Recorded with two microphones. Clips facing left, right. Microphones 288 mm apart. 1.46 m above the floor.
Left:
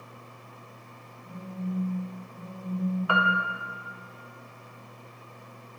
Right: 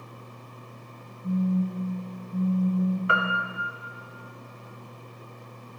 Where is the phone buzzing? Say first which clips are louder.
Right 10 dB; 70° right (ahead or behind), 2 m.